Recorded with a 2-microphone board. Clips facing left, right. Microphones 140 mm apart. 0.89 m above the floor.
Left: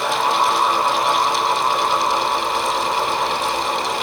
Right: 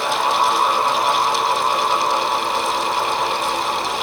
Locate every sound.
Only background noise.